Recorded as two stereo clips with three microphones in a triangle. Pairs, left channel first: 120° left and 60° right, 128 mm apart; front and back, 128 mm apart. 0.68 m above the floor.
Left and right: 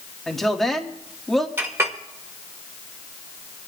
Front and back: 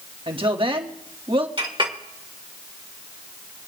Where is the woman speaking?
155° right, 1.3 m.